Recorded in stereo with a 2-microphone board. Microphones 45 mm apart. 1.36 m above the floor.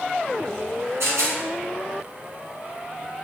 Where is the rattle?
75° right (ahead or behind), 1.5 m.